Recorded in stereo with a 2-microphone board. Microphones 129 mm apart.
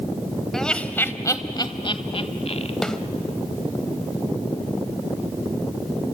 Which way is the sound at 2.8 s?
5° left (ahead or behind).